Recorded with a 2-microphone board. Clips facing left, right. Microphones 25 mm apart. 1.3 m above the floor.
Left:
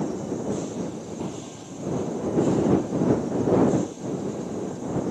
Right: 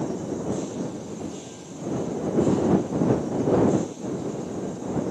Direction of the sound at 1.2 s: 45° left (ahead or behind).